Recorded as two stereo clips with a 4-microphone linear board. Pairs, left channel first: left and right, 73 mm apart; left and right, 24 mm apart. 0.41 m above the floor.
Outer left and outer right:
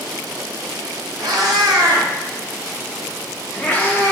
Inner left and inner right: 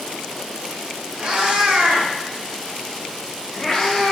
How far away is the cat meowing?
About 1.1 m.